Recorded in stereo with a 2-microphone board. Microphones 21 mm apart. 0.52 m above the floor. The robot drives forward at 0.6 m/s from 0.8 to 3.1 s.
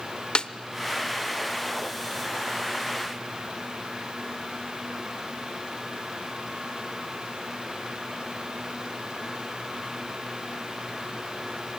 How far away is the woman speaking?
No woman speaking in this recording.